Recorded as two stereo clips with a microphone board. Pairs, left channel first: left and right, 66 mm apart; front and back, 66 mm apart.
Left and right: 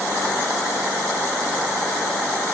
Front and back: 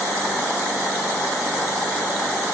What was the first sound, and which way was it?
Only background noise.